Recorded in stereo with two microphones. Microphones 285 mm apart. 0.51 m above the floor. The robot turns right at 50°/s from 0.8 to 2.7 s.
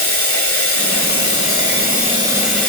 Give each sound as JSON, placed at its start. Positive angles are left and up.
{"t": 0.0, "sound": "running water", "azimuth_deg": -85, "distance_m": 1.6}